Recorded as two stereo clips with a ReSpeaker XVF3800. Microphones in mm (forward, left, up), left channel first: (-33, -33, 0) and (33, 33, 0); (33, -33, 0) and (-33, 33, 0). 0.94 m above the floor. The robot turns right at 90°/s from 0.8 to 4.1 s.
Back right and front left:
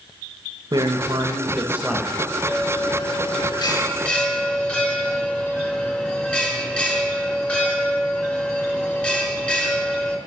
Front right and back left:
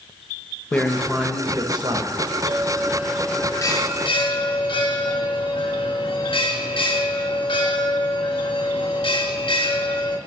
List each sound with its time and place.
0.7 s a man speaking: 25° left, 0.9 m; by 2.4 s 165° left, 0.9 m
2.5 s a bell: 155° left, 0.9 m; by 10.2 s 60° right, 0.9 m